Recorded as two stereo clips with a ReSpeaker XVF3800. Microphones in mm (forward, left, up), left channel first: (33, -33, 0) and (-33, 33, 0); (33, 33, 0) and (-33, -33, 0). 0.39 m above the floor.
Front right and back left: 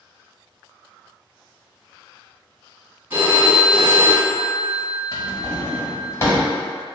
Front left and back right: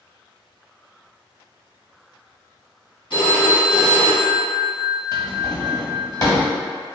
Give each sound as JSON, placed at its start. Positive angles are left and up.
{"t": 3.1, "sound": "a phone ringing", "azimuth_deg": 70, "distance_m": 1.5}
{"t": 5.1, "sound": "a drawer", "azimuth_deg": 5, "distance_m": 1.0}